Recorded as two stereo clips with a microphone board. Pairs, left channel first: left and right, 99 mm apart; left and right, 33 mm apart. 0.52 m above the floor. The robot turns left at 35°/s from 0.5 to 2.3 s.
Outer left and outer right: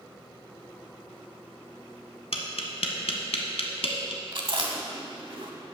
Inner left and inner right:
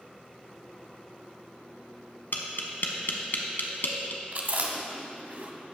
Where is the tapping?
80° left, 1.0 m.